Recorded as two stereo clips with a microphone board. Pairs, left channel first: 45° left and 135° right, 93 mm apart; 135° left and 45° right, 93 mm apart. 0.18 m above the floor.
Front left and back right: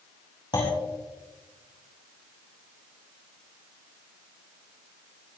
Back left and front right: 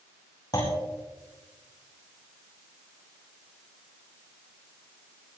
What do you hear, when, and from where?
0.5 s a clunk: 85° left, 5 m